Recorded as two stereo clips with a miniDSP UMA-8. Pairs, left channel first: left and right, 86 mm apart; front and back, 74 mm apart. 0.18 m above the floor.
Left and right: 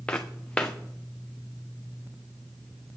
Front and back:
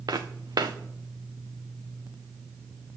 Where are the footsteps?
165° left, 0.9 m.